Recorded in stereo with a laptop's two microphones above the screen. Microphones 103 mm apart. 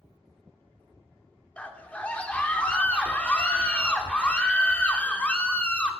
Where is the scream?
10° left (ahead or behind), 2.5 m.